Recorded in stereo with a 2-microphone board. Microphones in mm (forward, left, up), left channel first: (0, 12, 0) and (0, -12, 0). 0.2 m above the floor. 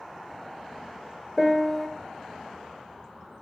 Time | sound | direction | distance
1.4 | a piano | 15° left (ahead or behind) | 0.6 m